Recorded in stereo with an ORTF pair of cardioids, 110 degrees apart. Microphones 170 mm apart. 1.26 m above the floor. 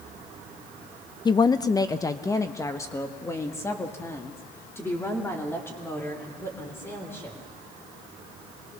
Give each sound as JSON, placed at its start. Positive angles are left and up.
{"t": 1.2, "sound": "a woman speaking", "azimuth_deg": 25, "distance_m": 0.6}